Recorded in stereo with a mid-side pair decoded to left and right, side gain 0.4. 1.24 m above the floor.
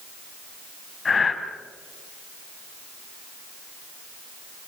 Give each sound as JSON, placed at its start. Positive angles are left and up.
{"t": 1.1, "sound": "breathing", "azimuth_deg": 40, "distance_m": 3.5}